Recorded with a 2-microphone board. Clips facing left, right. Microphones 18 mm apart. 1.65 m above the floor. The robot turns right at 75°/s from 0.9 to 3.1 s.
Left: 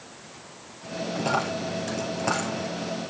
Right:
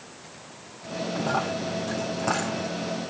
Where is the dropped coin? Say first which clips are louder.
Left 1 dB; 65° left (ahead or behind), 3.5 m; by 2.7 s 20° right (ahead or behind), 3.5 m.